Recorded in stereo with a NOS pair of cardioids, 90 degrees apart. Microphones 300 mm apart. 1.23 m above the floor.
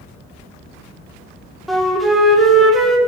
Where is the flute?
Straight ahead, 2.0 m.